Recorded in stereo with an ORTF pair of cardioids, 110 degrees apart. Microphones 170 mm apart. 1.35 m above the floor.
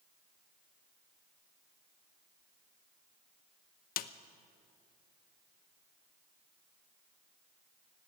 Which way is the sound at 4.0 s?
65° left.